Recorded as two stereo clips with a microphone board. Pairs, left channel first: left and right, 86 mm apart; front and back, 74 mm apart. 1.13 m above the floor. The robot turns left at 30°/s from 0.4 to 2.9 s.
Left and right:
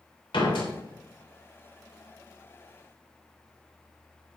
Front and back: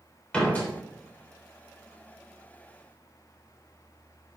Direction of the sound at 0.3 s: 75° left.